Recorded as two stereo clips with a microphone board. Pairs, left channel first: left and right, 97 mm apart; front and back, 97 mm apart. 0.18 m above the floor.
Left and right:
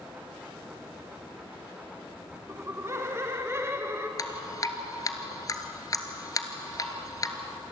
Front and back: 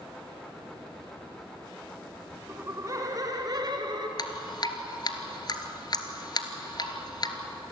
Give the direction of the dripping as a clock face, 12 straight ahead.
11 o'clock.